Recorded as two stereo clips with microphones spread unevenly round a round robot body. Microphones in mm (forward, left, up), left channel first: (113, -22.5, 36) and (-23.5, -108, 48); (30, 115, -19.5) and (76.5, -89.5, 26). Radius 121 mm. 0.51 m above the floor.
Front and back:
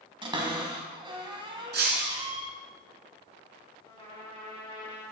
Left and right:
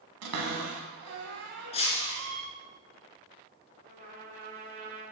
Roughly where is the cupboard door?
Right.